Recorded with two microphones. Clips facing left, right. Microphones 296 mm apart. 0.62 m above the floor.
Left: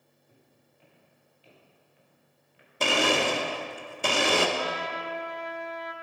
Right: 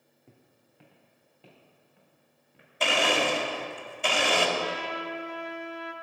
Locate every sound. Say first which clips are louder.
0.3 s footsteps: right 4 dB; 75° right (ahead or behind), 2.5 m; by 2.7 s 50° right (ahead or behind), 5 m
2.8 s a blender: left 2 dB; 50° left (ahead or behind), 1.1 m
4.6 s a trumpet: even; 35° right (ahead or behind), 0.9 m